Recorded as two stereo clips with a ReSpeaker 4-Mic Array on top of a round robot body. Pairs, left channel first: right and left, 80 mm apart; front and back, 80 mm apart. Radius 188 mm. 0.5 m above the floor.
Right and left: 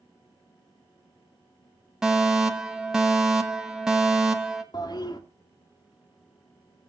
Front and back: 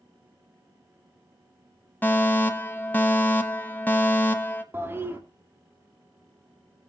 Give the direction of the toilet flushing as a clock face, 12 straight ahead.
4 o'clock.